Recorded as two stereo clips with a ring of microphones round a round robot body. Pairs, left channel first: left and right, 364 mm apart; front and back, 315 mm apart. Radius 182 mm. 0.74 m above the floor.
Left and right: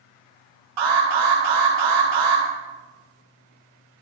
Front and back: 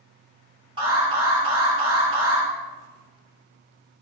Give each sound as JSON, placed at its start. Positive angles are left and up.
{"t": 0.8, "sound": "an alarm", "azimuth_deg": -105, "distance_m": 5.0}